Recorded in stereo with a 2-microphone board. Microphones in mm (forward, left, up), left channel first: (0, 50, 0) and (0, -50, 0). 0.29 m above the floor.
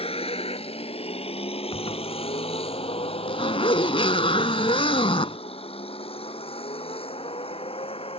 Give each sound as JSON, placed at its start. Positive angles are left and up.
{"t": 0.0, "sound": "a vehicle", "side_deg": 75}
{"t": 1.7, "sound": "a zipper", "side_deg": 65}